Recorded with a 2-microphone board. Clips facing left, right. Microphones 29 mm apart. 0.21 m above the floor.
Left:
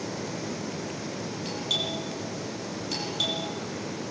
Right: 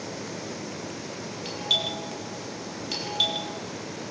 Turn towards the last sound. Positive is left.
turn(degrees=-20)  # may be behind; listen again after turning